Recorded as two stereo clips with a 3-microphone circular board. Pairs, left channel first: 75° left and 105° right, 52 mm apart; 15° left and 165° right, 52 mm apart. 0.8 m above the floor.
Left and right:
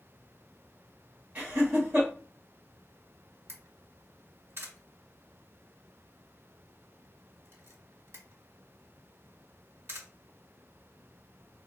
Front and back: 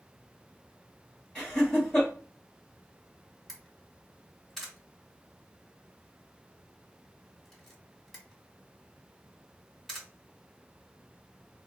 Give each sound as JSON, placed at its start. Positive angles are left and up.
{"t": 1.4, "sound": "laughter", "azimuth_deg": -55, "distance_m": 1.1}
{"t": 3.5, "sound": "a camera shutter", "azimuth_deg": -70, "distance_m": 1.2}